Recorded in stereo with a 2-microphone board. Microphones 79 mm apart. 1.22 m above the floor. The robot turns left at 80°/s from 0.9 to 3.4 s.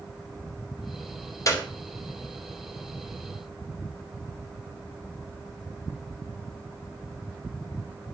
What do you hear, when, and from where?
1.5 s a clap: 45° left (ahead or behind), 3 m; by 1.7 s 30° left (ahead or behind), 3 m